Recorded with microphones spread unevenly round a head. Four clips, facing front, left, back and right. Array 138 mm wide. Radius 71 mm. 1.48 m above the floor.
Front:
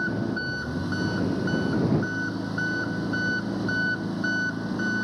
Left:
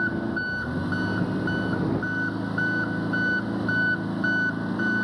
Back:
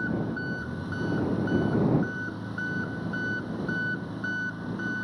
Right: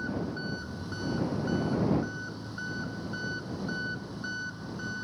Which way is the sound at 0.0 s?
60° left.